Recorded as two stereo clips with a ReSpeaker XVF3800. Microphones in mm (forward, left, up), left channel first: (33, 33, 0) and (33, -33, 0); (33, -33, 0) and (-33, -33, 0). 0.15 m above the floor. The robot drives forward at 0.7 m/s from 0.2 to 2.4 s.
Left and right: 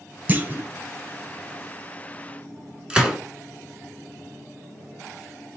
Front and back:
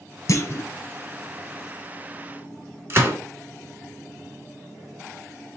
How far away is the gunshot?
About 1.3 m.